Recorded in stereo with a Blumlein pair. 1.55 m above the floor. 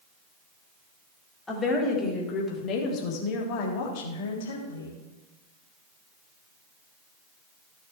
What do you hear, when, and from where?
1.5 s a woman speaking: 15° left, 4 m; by 5.0 s 65° left, 3 m